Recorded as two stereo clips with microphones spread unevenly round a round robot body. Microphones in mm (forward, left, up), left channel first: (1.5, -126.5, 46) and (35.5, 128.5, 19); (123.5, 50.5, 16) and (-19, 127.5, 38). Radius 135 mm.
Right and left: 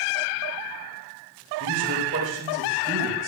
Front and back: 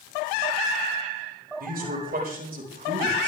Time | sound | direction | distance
1.6 | a man speaking | 130° left | 6 m